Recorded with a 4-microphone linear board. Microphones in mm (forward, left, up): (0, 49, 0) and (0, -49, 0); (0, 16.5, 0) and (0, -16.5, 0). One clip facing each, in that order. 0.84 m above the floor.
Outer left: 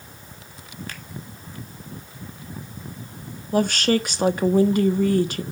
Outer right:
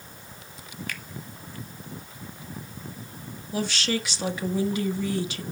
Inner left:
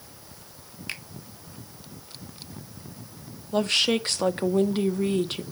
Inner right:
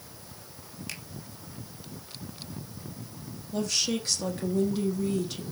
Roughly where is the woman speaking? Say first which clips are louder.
Outer left 8 dB, inner left 7 dB; left.